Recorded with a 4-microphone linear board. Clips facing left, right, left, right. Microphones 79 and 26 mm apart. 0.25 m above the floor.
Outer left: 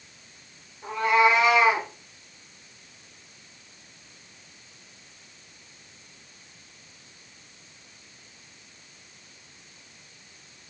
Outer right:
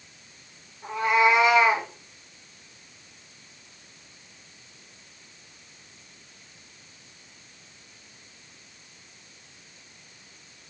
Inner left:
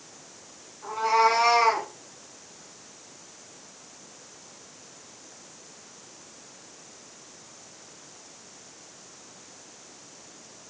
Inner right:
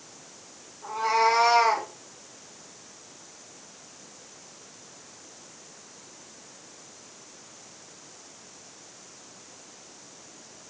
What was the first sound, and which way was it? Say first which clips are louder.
A cat meowing: outer left 1 dB, inner left 1 dB; 15° right (ahead or behind).